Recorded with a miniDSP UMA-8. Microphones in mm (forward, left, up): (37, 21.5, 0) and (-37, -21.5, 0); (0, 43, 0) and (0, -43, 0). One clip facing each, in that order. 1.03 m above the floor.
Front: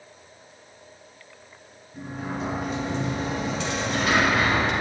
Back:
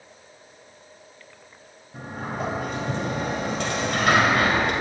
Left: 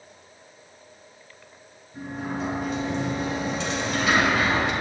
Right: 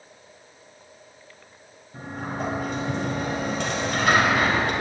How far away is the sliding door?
About 1.9 m.